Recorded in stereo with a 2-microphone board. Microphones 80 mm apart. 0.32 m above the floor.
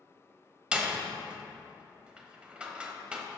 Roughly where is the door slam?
Centre.